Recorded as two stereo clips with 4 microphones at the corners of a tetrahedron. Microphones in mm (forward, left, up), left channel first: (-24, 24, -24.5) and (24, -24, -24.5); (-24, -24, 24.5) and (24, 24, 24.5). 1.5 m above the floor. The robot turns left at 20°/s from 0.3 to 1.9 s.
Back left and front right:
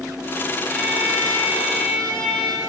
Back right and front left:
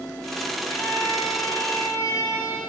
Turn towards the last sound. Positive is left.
turn(degrees=-110)